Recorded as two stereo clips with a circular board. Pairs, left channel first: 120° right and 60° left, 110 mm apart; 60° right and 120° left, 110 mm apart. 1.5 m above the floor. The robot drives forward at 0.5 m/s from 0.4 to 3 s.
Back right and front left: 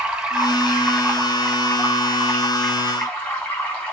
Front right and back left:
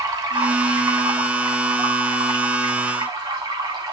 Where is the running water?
140° left, 0.8 m; by 3.9 s 170° left, 1.8 m.